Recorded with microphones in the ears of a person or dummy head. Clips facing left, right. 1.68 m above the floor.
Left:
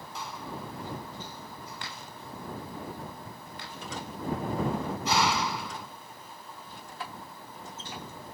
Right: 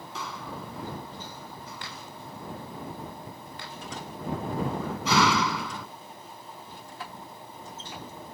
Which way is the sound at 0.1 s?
70° right (ahead or behind).